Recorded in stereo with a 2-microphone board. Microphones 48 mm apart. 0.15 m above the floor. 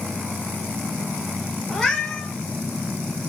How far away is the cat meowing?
About 1.3 m.